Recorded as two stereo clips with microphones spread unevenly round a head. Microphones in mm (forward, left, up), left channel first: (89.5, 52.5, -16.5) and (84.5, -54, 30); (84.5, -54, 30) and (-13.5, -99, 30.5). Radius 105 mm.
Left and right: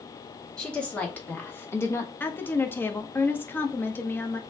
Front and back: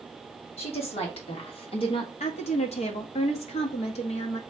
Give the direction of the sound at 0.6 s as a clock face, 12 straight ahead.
12 o'clock.